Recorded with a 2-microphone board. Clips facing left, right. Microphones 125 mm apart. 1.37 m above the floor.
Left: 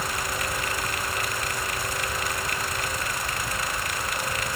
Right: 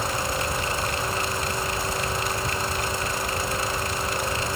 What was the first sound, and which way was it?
Only background noise.